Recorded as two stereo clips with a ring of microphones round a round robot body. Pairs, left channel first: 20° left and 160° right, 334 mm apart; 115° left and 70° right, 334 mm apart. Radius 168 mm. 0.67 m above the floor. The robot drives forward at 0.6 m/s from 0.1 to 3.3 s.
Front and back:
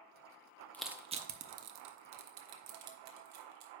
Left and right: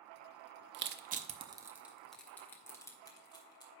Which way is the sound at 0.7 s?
60° right.